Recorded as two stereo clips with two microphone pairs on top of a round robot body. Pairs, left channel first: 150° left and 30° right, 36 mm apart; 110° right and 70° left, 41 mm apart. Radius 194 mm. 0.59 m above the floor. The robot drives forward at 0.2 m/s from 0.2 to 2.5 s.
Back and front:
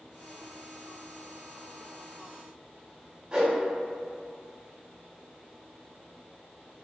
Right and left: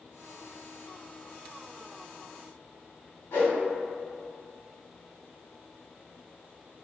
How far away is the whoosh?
About 1.1 m.